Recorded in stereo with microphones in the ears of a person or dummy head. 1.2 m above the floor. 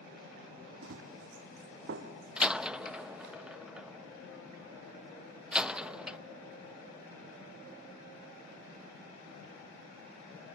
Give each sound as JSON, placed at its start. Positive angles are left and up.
{"t": 0.8, "sound": "running footsteps", "side_deg": -65, "distance_m": 3.0}
{"t": 2.4, "sound": "a door slam", "side_deg": -5, "distance_m": 0.6}